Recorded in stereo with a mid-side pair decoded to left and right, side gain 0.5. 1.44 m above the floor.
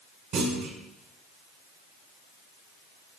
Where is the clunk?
70° right, 1.4 m.